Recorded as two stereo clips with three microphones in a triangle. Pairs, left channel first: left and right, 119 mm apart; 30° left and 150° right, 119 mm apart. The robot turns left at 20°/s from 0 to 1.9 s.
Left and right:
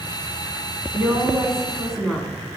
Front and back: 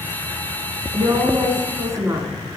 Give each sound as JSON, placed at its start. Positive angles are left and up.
{"t": 0.9, "sound": "a woman speaking", "azimuth_deg": -165, "distance_m": 1.6}